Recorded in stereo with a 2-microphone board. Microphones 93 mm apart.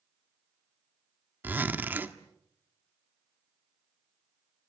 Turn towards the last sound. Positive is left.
turn(degrees=-20)  # may be behind; listen again after turning